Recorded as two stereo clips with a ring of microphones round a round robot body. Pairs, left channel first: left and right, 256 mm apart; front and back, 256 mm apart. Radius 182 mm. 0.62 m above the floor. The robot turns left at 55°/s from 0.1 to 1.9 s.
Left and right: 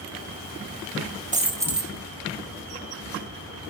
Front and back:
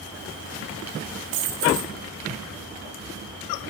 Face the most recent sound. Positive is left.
turn(degrees=175)